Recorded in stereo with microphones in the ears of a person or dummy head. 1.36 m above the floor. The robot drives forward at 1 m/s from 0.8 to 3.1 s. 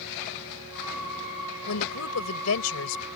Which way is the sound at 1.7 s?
90° left.